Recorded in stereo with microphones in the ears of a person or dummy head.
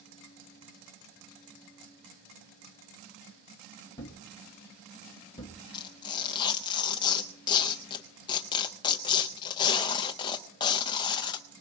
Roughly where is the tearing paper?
Left.